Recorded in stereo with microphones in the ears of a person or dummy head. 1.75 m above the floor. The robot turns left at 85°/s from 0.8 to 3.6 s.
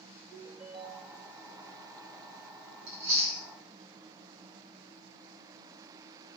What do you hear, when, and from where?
0.3 s a ringtone: straight behind, 1.7 m; by 1.3 s 140° left, 1.7 m
2.9 s chewing: 60° right (ahead or behind), 1.6 m